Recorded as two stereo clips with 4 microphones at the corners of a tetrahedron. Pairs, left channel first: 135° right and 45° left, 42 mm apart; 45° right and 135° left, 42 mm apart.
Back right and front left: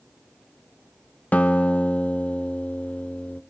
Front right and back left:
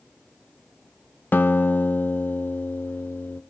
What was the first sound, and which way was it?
A guitar, 80° right.